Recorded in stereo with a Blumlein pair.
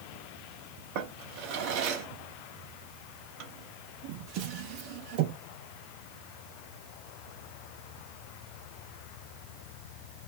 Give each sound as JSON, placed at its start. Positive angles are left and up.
{"t": 0.9, "sound": "a drawer", "azimuth_deg": -45, "distance_m": 0.7}